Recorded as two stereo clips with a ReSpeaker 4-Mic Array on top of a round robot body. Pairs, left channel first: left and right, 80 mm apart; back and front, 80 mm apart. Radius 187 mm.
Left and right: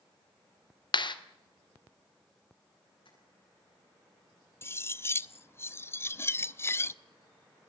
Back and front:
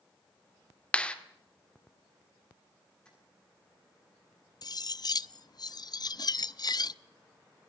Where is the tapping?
100° left, 10 m.